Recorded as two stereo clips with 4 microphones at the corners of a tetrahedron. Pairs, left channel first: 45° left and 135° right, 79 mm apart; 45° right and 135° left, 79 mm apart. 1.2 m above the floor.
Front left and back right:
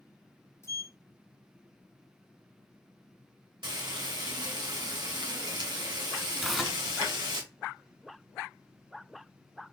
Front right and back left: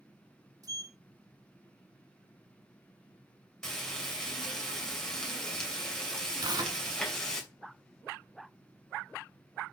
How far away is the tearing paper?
About 1.8 m.